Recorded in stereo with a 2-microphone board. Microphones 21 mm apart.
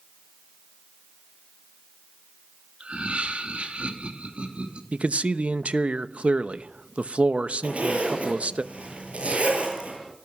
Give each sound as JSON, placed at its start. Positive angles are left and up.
{"t": 2.8, "sound": "laughter", "side_deg": -65, "distance_m": 2.5}
{"t": 4.9, "sound": "a man speaking", "side_deg": -70, "distance_m": 0.8}
{"t": 7.6, "sound": "a zipper", "side_deg": -70, "distance_m": 8.0}